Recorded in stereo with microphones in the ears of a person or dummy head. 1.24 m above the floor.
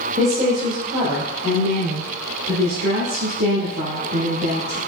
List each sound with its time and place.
0.2 s a woman speaking: 20° right (ahead or behind), 0.9 m; by 4.8 s 80° right, 3.5 m